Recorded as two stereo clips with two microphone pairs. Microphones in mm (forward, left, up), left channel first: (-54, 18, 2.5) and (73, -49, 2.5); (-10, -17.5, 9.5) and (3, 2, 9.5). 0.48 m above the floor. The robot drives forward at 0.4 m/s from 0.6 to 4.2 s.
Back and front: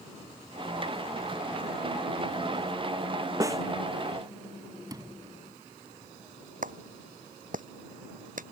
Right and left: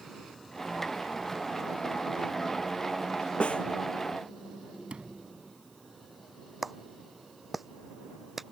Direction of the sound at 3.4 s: 95° right.